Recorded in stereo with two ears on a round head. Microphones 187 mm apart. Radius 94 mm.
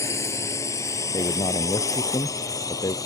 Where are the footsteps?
I don't hear footsteps.